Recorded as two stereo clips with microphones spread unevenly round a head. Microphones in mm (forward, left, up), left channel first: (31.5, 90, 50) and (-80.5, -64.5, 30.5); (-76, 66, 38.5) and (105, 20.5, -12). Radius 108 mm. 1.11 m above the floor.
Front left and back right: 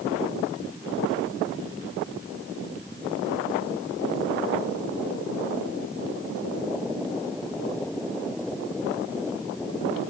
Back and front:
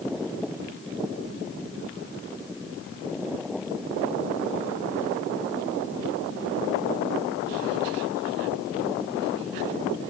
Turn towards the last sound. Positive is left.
No sound to turn to.